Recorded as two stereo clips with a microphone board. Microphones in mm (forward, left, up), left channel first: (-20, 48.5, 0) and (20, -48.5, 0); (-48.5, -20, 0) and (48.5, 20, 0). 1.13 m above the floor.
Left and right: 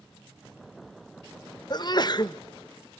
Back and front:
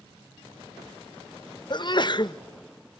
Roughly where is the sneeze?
Behind.